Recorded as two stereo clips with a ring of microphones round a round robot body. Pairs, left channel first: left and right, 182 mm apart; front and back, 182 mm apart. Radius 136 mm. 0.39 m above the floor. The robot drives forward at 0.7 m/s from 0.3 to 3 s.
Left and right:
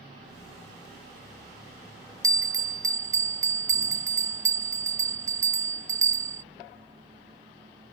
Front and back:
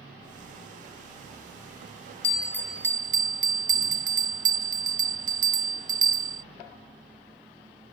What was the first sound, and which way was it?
A bell, 25° right.